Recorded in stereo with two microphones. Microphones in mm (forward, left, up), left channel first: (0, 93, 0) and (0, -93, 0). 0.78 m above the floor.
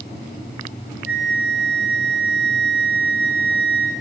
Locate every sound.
1.1 s a flute: 60° left (ahead or behind), 0.8 m